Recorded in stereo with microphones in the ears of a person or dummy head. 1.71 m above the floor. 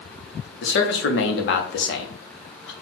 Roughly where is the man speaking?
Left.